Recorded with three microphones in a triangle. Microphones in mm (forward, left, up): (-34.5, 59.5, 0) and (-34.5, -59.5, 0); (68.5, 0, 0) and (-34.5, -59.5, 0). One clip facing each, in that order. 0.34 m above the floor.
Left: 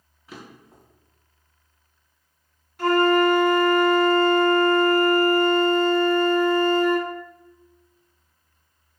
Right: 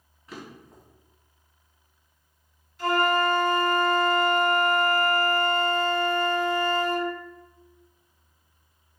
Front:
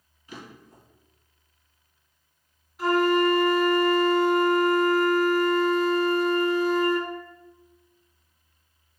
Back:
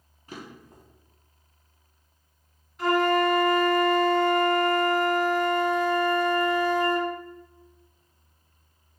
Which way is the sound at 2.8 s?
115° left.